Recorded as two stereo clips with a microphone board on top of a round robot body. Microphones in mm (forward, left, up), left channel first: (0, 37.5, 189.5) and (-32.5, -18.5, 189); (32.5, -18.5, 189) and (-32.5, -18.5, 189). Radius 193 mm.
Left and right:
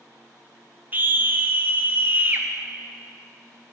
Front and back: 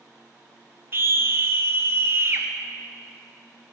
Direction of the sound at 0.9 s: 160° right.